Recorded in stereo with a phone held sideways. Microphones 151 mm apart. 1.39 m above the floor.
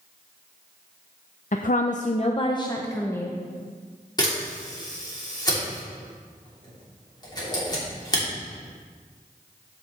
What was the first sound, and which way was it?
A woman speaking, 60° left (ahead or behind).